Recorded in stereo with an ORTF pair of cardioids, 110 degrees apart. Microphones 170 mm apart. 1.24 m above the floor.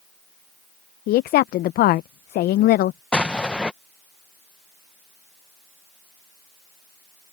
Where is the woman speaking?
65° left.